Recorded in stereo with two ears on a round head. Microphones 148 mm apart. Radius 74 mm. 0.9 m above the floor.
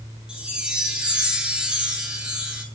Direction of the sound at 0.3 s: 5° right (ahead or behind).